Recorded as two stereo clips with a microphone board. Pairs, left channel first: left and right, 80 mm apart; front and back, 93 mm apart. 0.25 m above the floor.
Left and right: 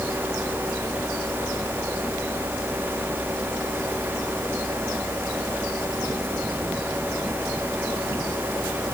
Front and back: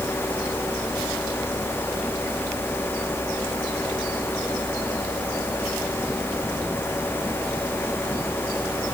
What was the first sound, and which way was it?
Only background noise.